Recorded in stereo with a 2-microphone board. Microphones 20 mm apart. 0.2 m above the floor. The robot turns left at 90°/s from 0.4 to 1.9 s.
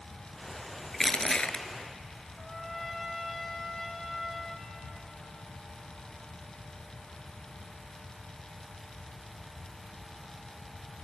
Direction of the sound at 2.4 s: 10° left (ahead or behind).